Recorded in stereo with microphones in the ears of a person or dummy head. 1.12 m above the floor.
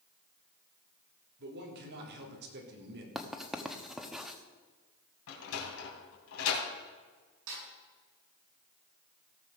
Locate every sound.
1.4 s a man speaking: 55° right (ahead or behind), 3.5 m
3.1 s writing: 5° right (ahead or behind), 1.1 m
5.3 s a sliding door: 75° left (ahead or behind), 3 m
7.5 s a snare drum: 70° right (ahead or behind), 7.5 m